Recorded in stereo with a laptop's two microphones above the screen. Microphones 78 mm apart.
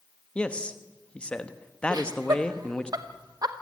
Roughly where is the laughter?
Right.